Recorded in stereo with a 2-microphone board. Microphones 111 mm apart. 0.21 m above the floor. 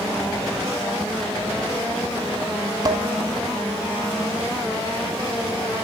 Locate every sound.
2.9 s dishes clattering: 40° right (ahead or behind), 1.0 m